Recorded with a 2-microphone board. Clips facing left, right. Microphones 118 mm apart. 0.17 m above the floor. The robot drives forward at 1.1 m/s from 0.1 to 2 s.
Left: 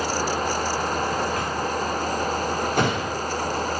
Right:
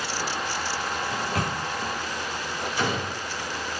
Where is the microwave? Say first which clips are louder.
Left 3 dB; 70° right (ahead or behind), 4 m; by 1.6 s 75° right (ahead or behind), 4 m.